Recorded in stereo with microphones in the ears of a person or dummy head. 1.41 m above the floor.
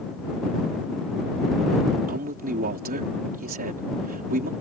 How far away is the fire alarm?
No fire alarm in this recording.